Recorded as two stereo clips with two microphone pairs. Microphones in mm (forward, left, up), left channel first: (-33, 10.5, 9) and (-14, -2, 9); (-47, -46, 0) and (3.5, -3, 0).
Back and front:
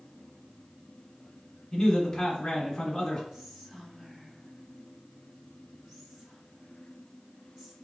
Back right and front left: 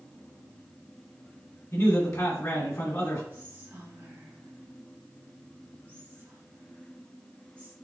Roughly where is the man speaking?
Behind right.